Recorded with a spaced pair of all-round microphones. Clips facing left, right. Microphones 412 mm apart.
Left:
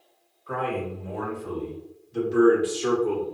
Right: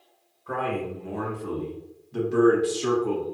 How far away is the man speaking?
About 1.3 m.